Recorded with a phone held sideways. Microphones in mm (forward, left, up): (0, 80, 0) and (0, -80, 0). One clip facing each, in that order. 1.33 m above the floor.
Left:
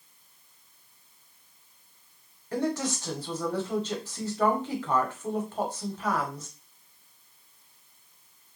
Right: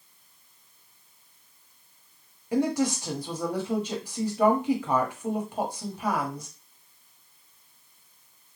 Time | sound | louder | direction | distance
2.5 | a woman speaking | right 4 dB | 10° right (ahead or behind) | 0.9 m